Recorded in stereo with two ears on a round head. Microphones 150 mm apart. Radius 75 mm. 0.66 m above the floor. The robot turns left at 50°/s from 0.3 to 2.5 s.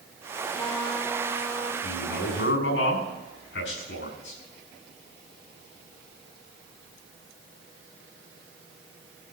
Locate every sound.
0.5 s a trumpet: 15° left, 2.5 m; by 1.7 s 45° right, 2.5 m
1.8 s a man speaking: 135° left, 6 m; by 4.4 s 100° left, 6 m